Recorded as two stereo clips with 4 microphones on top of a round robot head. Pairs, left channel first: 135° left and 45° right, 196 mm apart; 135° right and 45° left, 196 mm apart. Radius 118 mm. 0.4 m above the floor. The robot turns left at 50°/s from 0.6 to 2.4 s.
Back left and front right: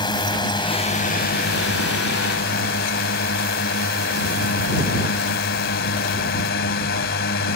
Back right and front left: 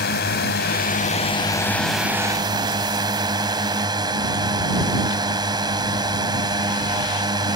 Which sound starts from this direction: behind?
A drone, at 0.0 s.